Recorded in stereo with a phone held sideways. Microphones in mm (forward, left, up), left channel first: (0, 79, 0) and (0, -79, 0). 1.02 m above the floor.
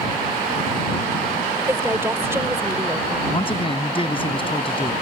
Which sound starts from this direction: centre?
A woman speaking, at 1.7 s.